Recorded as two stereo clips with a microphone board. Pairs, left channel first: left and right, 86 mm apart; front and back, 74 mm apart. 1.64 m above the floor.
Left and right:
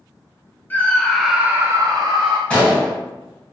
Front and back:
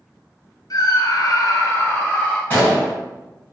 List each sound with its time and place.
0.7 s a scream: 25° left, 1.0 m; by 2.4 s 70° right, 1.1 m
2.5 s a gunshot: 30° left, 1.6 m